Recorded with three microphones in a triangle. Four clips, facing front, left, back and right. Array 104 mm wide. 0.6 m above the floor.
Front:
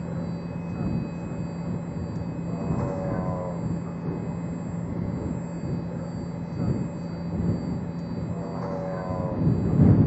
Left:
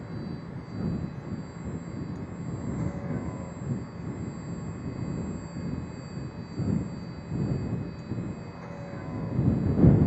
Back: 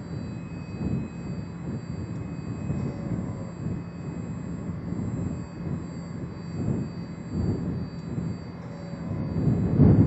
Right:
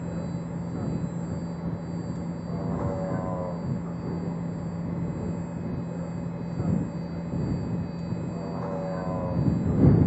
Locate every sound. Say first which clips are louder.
0.0 s a vehicle: right 4 dB, front 4 dB; 45° right